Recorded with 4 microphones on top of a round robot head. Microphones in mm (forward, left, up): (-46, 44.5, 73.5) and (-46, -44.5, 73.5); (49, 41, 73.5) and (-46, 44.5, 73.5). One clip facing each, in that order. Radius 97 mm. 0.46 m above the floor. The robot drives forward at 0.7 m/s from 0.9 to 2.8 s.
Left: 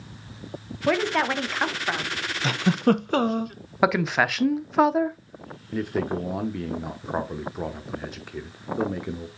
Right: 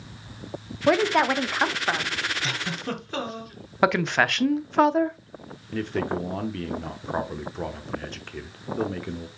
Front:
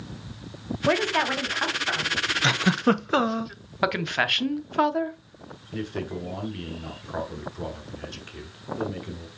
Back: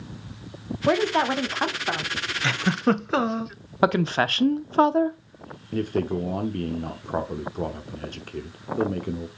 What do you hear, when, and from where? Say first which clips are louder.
0.9 s a woman speaking: right 3 dB, back 2 dB; 135° right, 0.9 m; by 2.2 s 170° right, 1.4 m
2.4 s a giggle: left 10 dB, even; 65° left, 0.8 m; by 3.5 s 85° left, 0.8 m
3.8 s a woman speaking: even, back 4 dB; 175° left, 0.8 m
5.7 s a man speaking: left 1 dB, back 6 dB; 165° left, 1.0 m